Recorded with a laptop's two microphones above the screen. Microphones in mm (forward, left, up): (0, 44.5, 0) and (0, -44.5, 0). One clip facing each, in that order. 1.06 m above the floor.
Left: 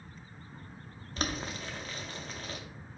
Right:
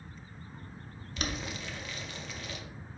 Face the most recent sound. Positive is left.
turn(degrees=40)  # may be behind; listen again after turning